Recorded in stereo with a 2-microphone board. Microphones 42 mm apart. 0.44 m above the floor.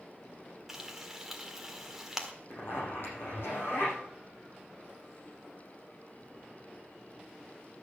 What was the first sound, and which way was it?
Frying, 10° right (ahead or behind).